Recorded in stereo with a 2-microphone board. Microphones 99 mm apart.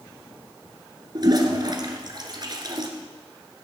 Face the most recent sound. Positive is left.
turn(degrees=-45)  # may be behind; listen again after turning